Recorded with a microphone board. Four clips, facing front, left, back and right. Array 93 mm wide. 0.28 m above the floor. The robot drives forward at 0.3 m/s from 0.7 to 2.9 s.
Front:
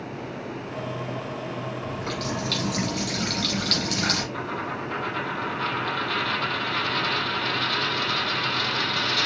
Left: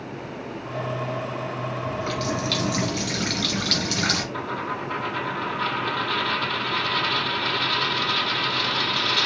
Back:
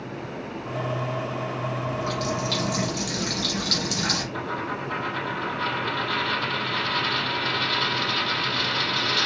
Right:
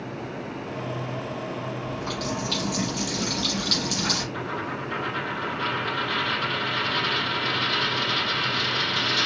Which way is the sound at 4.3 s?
105° left.